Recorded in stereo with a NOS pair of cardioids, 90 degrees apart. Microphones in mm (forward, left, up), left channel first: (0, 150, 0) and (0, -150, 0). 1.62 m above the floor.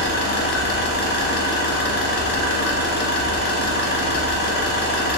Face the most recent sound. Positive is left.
turn(degrees=40)